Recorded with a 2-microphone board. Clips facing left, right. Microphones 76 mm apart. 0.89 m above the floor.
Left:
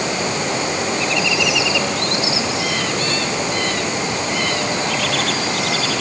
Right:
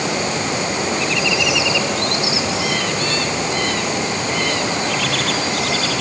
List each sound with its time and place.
Only background noise.